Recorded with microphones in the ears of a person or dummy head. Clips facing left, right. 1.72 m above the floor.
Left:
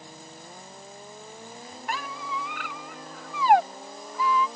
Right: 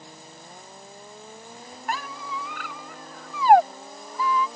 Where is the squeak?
45° right (ahead or behind).